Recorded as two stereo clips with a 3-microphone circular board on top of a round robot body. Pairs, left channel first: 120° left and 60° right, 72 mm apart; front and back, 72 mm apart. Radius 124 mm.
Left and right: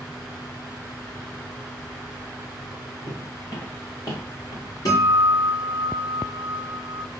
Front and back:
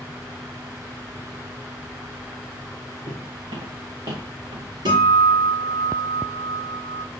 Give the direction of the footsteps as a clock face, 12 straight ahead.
6 o'clock.